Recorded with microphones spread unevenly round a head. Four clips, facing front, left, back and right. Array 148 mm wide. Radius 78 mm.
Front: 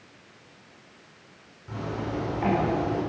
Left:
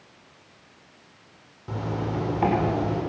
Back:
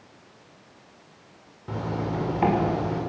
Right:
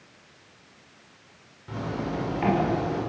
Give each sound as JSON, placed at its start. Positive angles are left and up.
{"t": 1.7, "sound": "a zipper", "azimuth_deg": 150, "distance_m": 5.5}